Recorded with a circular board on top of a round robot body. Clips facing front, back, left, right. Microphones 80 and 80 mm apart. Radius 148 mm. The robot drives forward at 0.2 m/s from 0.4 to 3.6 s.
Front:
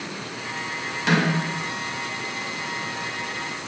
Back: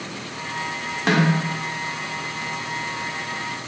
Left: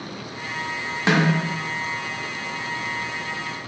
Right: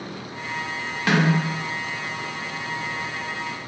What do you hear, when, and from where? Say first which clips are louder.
1.1 s a snare drum: back 2 dB, even; 150° left, 1.1 m